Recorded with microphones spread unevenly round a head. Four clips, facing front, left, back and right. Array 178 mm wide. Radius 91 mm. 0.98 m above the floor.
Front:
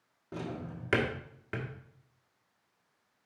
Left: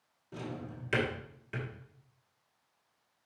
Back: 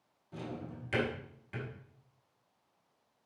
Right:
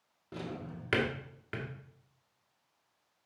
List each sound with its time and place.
0.3 s a drawer: 20° right, 1.5 m